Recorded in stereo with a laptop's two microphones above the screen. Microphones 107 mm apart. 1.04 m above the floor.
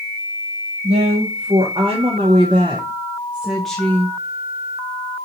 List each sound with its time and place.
0.8 s a woman speaking: 65° right (ahead or behind), 1.6 m; by 4.2 s 20° left (ahead or behind), 0.9 m